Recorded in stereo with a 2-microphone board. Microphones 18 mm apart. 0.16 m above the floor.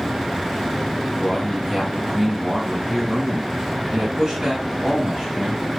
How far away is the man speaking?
About 1.8 m.